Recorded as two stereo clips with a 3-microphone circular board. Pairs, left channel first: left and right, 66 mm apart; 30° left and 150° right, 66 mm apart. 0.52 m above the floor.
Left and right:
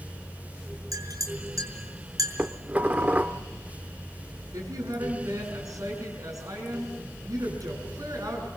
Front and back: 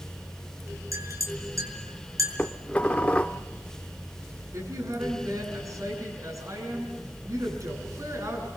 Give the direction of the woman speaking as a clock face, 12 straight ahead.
4 o'clock.